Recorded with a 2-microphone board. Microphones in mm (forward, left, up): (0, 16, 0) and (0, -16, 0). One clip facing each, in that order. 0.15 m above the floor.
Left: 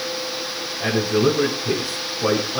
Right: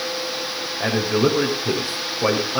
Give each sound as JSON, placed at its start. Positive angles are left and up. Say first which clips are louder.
{"t": 0.8, "sound": "a man speaking", "louder": "left 1 dB", "side_deg": -35, "distance_m": 7.0}